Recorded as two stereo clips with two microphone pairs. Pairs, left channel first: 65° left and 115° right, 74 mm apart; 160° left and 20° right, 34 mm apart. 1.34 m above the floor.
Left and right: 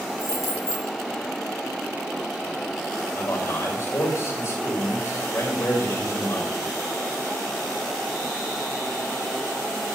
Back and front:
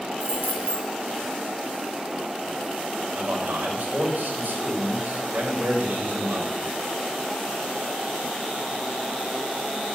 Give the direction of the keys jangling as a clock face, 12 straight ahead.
11 o'clock.